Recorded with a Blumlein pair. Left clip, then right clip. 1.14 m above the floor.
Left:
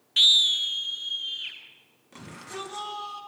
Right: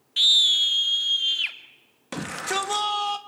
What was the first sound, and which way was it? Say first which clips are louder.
A scream: right 1 dB; 10° left.